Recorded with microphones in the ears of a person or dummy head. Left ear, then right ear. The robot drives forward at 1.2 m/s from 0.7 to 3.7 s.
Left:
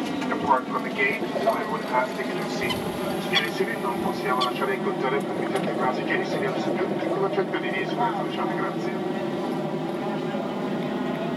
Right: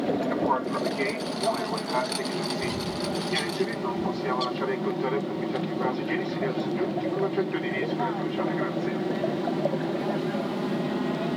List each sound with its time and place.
0.0 s an aircraft: 65° left (ahead or behind); by 11.4 s 10° left (ahead or behind)
2.6 s a bird: 40° left (ahead or behind); by 4.8 s 30° left (ahead or behind)